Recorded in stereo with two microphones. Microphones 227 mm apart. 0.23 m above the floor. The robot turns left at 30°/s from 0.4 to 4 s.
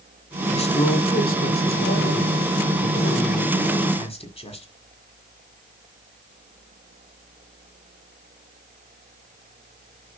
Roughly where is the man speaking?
Behind left.